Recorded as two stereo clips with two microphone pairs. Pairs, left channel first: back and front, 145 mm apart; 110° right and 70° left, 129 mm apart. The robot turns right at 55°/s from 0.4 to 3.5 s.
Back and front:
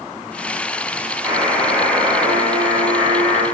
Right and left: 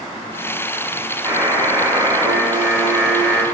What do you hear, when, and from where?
1.2 s a buzzer: 50° left, 1.4 m; by 3.4 s 170° left, 1.4 m